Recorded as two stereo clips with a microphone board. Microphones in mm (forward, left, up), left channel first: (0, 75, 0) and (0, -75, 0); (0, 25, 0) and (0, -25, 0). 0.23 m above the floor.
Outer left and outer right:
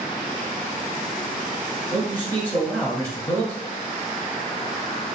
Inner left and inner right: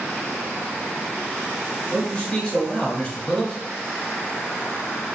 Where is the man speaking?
15° left (ahead or behind), 0.9 m.